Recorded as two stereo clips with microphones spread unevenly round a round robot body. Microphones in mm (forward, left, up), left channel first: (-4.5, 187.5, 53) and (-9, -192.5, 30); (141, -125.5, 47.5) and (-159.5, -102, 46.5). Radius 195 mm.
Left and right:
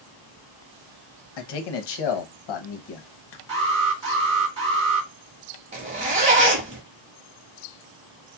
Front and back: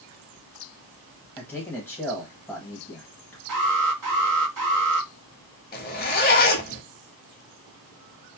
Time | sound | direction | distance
1.4 | a man speaking | 80° left | 0.9 m
3.5 | an alarm | 165° right | 2.5 m
5.7 | a zipper | 30° right | 0.8 m